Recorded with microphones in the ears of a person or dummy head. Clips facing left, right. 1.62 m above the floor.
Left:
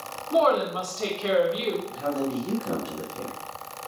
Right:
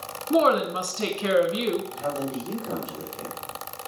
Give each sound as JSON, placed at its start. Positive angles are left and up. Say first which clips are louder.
{"t": 0.3, "sound": "a woman speaking", "louder": "right 1 dB", "side_deg": -40, "distance_m": 2.0}
{"t": 1.9, "sound": "a man speaking", "louder": "left 2 dB", "side_deg": 50, "distance_m": 1.8}